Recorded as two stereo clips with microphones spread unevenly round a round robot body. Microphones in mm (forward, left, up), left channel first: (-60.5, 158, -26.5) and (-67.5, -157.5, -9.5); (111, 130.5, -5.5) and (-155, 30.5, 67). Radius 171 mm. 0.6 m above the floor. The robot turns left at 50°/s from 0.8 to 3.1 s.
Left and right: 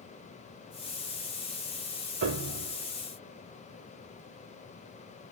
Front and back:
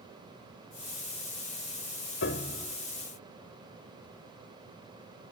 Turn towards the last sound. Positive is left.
turn(degrees=-85)